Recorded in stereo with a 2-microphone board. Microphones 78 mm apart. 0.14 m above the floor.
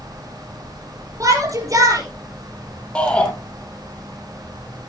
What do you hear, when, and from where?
1.2 s a shout: 45° right (ahead or behind), 4.5 m
3.0 s a shout: 15° left (ahead or behind), 4 m